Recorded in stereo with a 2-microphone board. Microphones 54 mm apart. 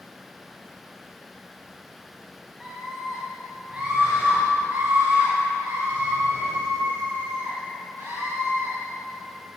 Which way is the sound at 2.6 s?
10° right (ahead or behind).